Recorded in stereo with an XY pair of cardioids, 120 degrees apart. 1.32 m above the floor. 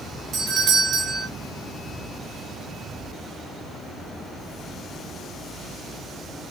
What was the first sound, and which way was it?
A doorbell, 55° right.